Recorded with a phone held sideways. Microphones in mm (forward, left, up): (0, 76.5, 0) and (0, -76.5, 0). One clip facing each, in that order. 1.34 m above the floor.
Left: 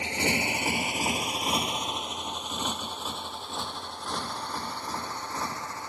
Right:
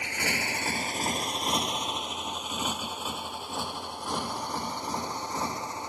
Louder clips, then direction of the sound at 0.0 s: Left 4 dB; 25° left (ahead or behind).